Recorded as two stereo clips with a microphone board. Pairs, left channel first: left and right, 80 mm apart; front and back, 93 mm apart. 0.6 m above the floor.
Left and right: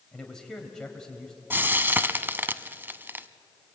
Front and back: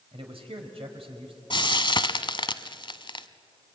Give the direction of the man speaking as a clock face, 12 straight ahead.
6 o'clock.